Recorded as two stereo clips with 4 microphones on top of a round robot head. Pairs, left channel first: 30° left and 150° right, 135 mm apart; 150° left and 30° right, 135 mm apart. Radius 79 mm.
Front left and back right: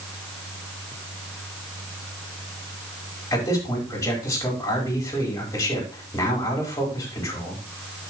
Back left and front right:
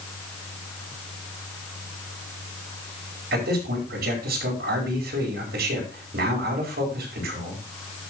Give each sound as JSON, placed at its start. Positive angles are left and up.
{"t": 3.3, "sound": "a man speaking", "azimuth_deg": -40, "distance_m": 5.0}